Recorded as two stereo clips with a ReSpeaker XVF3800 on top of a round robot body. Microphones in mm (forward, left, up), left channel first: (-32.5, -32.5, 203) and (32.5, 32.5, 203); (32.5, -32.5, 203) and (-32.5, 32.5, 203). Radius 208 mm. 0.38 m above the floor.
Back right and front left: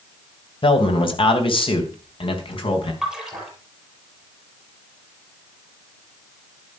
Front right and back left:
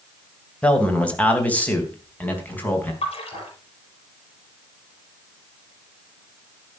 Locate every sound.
0.6 s a man speaking: 120° right, 3 m; by 2.9 s 115° right, 5 m
3.0 s a splash: 40° right, 5.5 m